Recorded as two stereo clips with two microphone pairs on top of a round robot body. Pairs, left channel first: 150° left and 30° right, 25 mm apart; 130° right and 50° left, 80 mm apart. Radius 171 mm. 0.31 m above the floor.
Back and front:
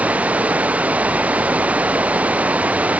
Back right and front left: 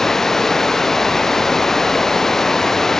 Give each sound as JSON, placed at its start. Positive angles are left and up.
{"t": 0.0, "sound": "running water", "azimuth_deg": -45}